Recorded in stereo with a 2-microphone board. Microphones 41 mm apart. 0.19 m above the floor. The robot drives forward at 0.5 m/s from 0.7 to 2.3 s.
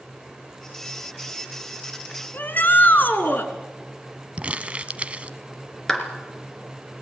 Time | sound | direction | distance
2.3 | a shout | 50° left (ahead or behind) | 2.5 m
4.4 | crumpling | 30° right (ahead or behind) | 0.7 m
5.9 | a clap | 10° left (ahead or behind) | 2.5 m